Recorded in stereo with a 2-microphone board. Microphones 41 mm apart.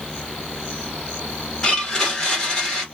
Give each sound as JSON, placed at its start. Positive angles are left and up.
{"t": 1.6, "sound": "a blender", "side_deg": 20, "distance_m": 1.4}